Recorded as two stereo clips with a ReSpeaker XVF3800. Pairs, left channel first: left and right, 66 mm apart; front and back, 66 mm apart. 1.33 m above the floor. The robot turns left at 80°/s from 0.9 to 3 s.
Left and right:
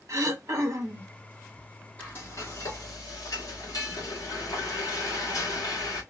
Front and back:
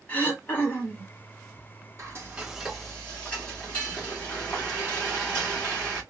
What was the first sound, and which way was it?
Throat clearing, 60° right.